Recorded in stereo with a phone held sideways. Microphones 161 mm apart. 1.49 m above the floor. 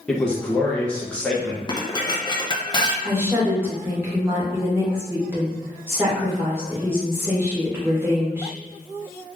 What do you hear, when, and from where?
0.1 s a man speaking: 5° left (ahead or behind), 1.1 m
1.7 s dishes clattering: 25° left (ahead or behind), 0.6 m
3.0 s a woman speaking: 15° right (ahead or behind), 1.8 m